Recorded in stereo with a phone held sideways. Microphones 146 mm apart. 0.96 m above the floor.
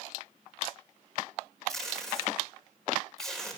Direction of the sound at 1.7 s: 5° left (ahead or behind).